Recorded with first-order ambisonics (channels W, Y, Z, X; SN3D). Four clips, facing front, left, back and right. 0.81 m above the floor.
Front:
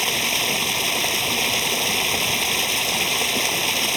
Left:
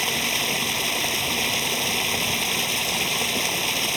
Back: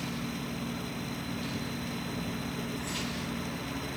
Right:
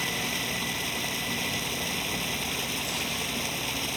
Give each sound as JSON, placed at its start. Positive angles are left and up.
{"t": 0.0, "sound": "running water", "azimuth_deg": 25}